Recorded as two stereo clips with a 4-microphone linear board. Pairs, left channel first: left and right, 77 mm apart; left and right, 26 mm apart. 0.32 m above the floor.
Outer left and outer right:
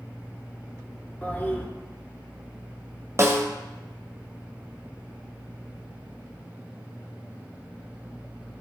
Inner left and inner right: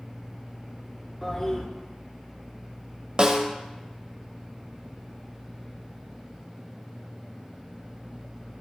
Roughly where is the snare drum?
Right.